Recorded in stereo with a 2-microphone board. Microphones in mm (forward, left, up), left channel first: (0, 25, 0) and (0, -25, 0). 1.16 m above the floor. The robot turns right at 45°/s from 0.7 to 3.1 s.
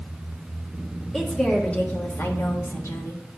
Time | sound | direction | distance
1.1 | a woman speaking | 5° left | 1.5 m